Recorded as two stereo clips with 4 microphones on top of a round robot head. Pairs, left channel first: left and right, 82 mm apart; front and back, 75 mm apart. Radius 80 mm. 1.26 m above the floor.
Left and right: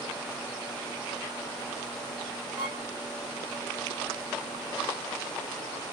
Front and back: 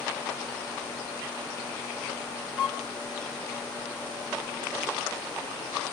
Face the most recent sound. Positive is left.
turn(degrees=-110)